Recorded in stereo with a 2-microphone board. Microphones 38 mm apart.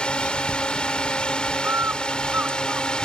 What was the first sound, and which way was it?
A drone, 20° left (ahead or behind).